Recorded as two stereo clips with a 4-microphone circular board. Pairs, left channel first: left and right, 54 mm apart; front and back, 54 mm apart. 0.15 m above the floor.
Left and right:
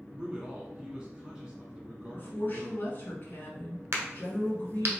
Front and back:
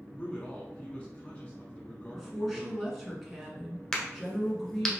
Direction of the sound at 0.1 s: 35° right.